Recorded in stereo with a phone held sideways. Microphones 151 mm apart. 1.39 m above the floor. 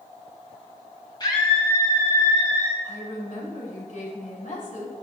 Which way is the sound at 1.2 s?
30° left (ahead or behind).